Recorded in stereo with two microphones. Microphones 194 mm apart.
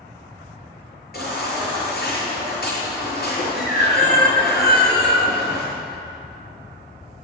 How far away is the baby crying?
About 5.5 m.